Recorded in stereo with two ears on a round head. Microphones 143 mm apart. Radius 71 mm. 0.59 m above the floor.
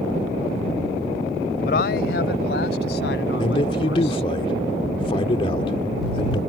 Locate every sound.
1.6 s a man speaking: 65° left (ahead or behind); by 4.3 s 80° left
3.4 s a man speaking: 35° left (ahead or behind)